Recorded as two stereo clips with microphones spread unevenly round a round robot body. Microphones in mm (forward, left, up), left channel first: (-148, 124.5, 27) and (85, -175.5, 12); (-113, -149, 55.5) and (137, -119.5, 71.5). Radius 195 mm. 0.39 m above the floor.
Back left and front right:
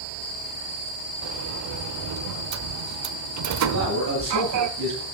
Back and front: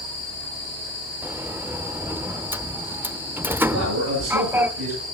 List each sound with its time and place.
1.2 s a sliding door: 75° right, 0.9 m
3.7 s a man speaking: 5° left, 9 m